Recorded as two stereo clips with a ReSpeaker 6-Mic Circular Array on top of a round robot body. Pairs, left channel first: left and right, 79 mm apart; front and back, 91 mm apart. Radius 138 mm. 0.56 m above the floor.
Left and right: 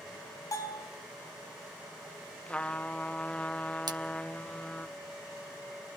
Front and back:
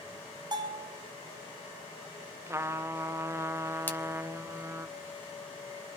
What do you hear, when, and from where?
0.5 s a bell: 135° left, 6 m
2.5 s a trumpet: 155° left, 0.8 m
3.9 s a splash: 70° right, 2.5 m